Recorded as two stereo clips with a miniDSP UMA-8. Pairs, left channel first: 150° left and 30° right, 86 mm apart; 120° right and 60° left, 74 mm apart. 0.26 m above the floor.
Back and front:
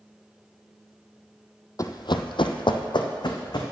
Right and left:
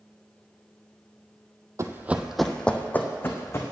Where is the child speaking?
No child speaking in this recording.